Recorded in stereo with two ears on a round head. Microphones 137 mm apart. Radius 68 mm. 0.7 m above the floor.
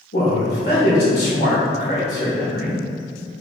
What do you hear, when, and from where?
0.1 s a man speaking: 75° left (ahead or behind), 2.0 m